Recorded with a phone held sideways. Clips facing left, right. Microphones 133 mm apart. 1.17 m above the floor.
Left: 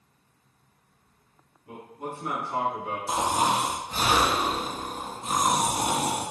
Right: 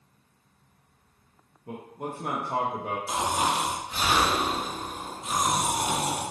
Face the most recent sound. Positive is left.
turn(degrees=40)  # may be behind; listen again after turning